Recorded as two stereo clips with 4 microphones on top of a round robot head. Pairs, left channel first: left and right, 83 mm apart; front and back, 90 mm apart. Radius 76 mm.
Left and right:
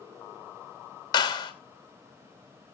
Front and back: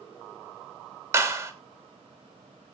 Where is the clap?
125° left, 3 m.